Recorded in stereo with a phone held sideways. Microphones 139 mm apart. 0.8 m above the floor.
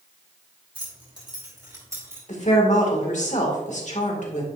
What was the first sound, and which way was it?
Keys jangling, 35° right (ahead or behind).